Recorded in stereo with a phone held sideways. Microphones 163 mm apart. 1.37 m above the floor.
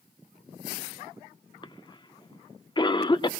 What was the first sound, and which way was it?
A cough, 30° left (ahead or behind).